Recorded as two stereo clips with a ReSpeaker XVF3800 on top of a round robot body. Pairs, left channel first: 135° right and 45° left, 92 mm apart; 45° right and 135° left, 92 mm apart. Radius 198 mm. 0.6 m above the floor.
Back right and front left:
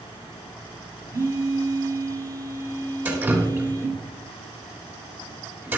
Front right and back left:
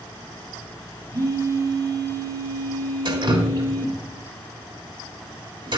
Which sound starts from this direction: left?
A phone buzzing, at 1.1 s.